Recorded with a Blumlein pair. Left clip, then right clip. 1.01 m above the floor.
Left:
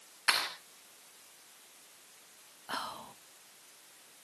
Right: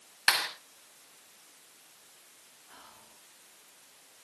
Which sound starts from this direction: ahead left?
Whispering, at 2.7 s.